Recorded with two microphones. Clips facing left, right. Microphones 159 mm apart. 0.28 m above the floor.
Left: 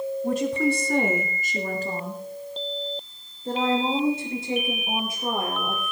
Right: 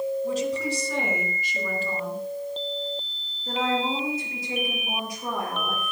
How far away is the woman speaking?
About 2.5 m.